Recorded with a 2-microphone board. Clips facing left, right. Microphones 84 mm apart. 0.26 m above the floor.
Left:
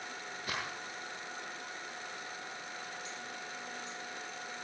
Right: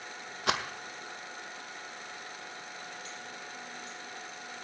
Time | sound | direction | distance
0.5 | a rattle | 90° right | 1.9 m